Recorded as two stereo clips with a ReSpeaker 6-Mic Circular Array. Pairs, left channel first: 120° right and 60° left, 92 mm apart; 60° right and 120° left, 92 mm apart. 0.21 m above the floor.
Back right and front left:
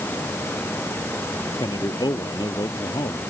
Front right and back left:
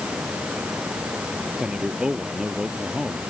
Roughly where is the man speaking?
Behind.